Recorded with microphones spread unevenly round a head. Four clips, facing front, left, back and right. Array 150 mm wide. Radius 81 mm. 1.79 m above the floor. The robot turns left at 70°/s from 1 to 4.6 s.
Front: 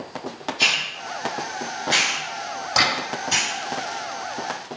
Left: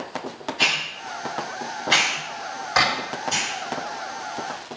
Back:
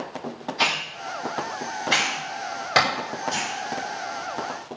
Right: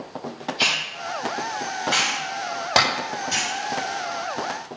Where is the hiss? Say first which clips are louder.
Left 2 dB, back 1 dB; 160° left, 5.5 m; by 3.5 s 15° right, 5.5 m.